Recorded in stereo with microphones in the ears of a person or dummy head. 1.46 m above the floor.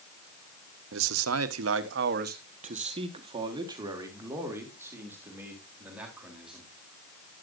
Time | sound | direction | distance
0.9 | a man speaking | 70° right (ahead or behind) | 1.2 m